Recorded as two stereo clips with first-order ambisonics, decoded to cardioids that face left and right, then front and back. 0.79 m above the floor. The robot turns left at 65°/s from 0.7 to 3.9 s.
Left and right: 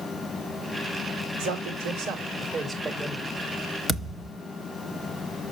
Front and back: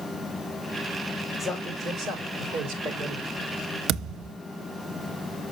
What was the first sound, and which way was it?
A man speaking, 95° right.